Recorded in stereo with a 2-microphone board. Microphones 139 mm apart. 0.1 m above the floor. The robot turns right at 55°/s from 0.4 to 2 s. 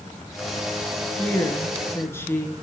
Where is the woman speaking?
15° left (ahead or behind), 1.1 m; by 2.5 s 20° left (ahead or behind), 1.1 m.